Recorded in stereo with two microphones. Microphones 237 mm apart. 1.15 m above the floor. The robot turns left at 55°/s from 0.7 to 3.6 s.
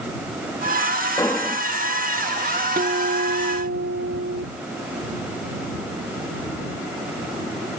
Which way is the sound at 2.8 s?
40° right.